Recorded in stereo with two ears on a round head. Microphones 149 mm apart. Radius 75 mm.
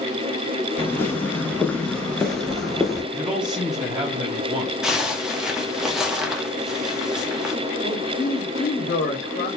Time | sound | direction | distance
0.8 | footsteps | 15° left (ahead or behind) | 0.9 m
3.1 | a man speaking | 5° right (ahead or behind) | 0.7 m
4.8 | a zipper | 5° right (ahead or behind) | 0.7 m
7.8 | a man speaking | 65° left (ahead or behind) | 2.5 m